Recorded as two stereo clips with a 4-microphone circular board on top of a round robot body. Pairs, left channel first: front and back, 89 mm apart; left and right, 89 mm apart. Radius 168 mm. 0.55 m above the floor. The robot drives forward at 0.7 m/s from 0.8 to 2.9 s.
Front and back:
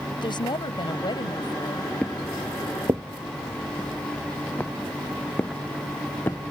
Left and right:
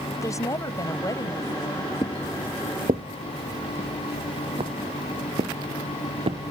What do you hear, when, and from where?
0.1 s a woman speaking: 35° left; by 1.9 s 45° left
2.0 s footsteps: 75° left; by 6.5 s 70° right